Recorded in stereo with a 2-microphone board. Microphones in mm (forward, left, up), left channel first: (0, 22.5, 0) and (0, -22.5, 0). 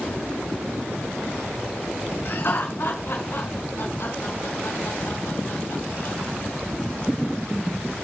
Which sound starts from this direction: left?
Laughter, at 2.2 s.